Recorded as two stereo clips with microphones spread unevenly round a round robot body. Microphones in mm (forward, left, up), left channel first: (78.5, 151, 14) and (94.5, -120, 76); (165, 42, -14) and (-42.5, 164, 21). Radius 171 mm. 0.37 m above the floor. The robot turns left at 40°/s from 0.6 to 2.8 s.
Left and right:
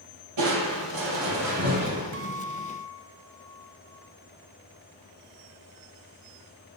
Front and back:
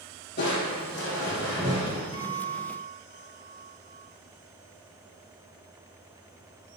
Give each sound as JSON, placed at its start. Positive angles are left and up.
{"t": 0.4, "sound": "crushing", "azimuth_deg": -95, "distance_m": 4.5}
{"t": 2.1, "sound": "a guitar", "azimuth_deg": -90, "distance_m": 2.0}